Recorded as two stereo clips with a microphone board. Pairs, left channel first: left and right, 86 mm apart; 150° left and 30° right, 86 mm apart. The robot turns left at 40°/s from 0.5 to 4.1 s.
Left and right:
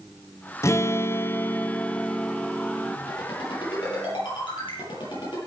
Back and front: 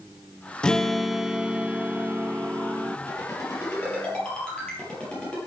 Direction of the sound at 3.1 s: 110° left.